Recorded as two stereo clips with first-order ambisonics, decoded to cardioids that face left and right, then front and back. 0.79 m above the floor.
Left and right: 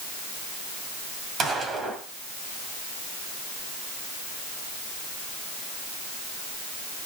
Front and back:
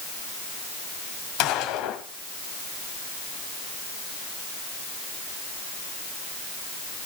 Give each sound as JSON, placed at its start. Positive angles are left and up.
{"t": 1.4, "sound": "a gunshot", "azimuth_deg": -25, "distance_m": 2.0}